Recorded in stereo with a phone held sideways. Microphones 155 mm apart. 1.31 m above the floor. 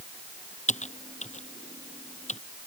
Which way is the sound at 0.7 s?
50° left (ahead or behind).